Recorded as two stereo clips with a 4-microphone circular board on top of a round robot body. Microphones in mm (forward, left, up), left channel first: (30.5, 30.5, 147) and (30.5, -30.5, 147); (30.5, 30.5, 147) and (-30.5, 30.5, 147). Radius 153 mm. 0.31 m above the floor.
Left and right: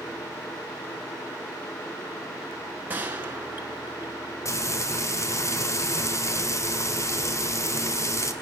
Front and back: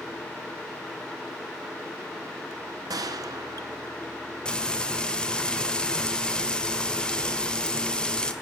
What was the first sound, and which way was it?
A gunshot, 155° right.